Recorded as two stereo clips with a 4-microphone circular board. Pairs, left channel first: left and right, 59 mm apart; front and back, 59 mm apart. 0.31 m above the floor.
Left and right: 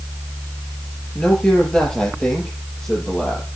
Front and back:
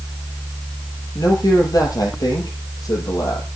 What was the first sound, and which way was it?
A man speaking, 10° left.